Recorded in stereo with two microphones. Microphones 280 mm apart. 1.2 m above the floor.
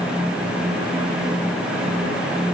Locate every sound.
Only background noise.